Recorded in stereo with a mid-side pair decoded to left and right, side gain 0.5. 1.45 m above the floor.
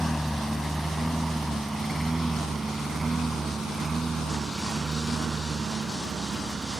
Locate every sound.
0.0 s a lawn mower: straight ahead; by 6.8 s 35° right